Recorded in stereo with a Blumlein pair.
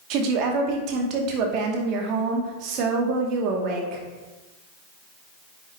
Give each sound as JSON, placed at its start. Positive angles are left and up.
{"t": 0.1, "sound": "a woman speaking", "azimuth_deg": -40, "distance_m": 2.5}